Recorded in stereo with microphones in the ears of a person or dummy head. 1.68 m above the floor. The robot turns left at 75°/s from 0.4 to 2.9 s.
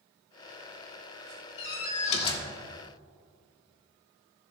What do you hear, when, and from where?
1.6 s a door slam: 90° left, 1.2 m; by 2.5 s 20° left, 1.2 m